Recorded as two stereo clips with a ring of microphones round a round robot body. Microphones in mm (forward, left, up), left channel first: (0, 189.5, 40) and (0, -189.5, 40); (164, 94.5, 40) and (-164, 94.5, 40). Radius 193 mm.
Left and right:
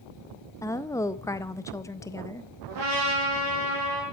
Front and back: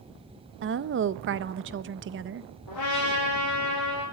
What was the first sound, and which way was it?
A woman speaking, 165° left.